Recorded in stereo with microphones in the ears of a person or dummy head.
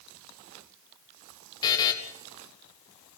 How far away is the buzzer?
About 2 m.